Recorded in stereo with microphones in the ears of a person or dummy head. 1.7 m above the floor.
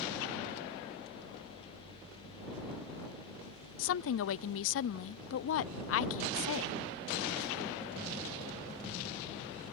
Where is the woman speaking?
70° left (ahead or behind).